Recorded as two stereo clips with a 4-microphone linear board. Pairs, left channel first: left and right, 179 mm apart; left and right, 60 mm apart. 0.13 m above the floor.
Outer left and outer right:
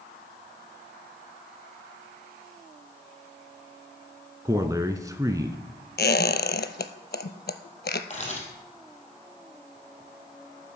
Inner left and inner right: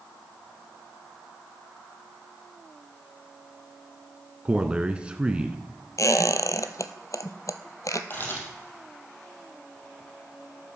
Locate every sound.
4.5 s a man speaking: 20° right (ahead or behind), 1.1 m
6.0 s a squeak: 70° left (ahead or behind), 0.8 m
8.1 s a camera shutter: 40° left (ahead or behind), 4 m